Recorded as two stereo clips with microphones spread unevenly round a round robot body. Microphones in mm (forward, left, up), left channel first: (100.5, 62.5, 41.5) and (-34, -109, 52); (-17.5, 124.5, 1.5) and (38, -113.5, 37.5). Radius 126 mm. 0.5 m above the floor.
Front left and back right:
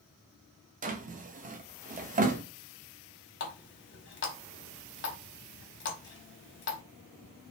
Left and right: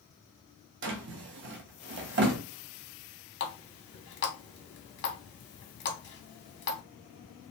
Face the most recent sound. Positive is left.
turn(degrees=75)